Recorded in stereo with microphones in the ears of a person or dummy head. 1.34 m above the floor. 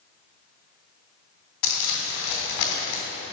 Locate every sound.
1.6 s crumpling: 65° left (ahead or behind), 2 m